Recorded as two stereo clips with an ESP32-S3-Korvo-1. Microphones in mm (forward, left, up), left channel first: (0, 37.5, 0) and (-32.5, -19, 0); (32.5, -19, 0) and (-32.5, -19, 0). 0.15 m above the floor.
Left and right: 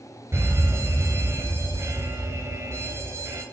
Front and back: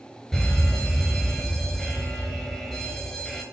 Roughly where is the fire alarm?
Right.